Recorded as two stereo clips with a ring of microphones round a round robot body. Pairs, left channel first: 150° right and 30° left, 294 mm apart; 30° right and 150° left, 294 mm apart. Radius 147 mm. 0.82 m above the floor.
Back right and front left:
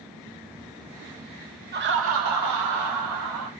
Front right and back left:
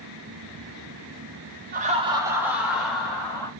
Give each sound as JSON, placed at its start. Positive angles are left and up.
{"t": 1.7, "sound": "laughter", "azimuth_deg": 90, "distance_m": 1.3}